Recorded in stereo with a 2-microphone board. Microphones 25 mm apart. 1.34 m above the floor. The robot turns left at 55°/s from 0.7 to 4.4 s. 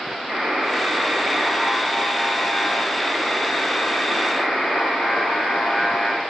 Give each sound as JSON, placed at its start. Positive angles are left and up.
{"t": 0.3, "sound": "a buzzer", "azimuth_deg": -75, "distance_m": 2.5}